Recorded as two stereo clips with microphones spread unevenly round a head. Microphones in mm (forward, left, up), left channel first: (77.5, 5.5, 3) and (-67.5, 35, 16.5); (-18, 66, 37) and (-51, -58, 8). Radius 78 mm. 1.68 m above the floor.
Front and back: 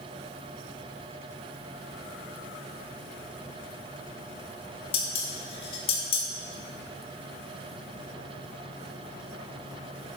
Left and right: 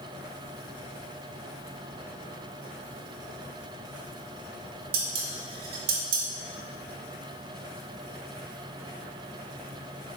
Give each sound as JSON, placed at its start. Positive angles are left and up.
{"t": 4.9, "sound": "dishes clattering", "azimuth_deg": -70, "distance_m": 1.5}